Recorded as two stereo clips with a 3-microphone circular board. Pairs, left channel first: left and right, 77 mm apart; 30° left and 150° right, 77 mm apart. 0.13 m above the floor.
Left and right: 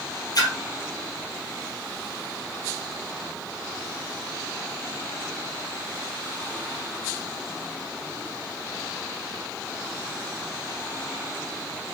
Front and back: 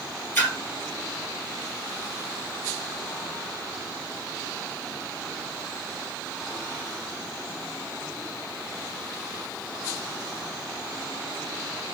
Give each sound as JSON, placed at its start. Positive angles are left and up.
{"t": 0.3, "sound": "a splash", "azimuth_deg": 90, "distance_m": 1.5}